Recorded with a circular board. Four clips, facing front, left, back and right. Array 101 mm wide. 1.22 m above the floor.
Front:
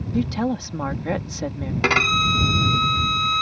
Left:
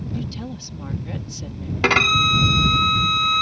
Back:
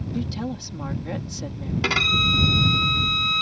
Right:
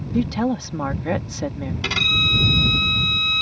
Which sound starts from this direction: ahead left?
A violin, at 1.8 s.